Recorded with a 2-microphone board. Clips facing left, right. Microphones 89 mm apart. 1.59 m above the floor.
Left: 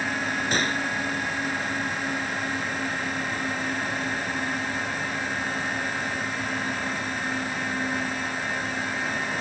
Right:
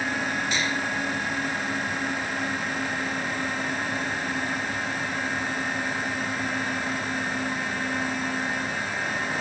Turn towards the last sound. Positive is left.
turn(degrees=50)  # may be behind; listen again after turning